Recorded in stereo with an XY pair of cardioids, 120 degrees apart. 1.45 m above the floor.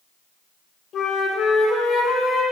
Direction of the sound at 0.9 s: 55° left.